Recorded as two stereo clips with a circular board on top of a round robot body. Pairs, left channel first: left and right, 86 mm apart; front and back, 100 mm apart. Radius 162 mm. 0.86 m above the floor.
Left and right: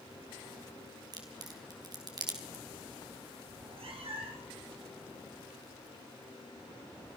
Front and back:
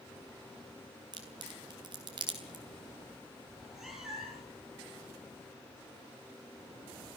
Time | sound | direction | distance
1.1 | a crack | 135° right | 4 m
3.5 | a cat meowing | 95° right | 5.5 m